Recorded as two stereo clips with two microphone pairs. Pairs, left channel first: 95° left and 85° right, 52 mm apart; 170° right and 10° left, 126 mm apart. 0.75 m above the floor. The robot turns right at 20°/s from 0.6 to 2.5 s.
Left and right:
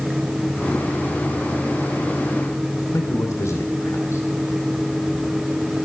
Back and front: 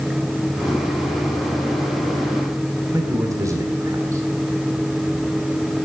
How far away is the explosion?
I don't hear an explosion.